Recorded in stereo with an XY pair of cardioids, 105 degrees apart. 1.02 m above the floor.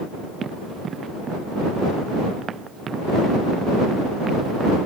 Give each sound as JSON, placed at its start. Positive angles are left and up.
{"t": 0.4, "sound": "running footsteps", "azimuth_deg": -50}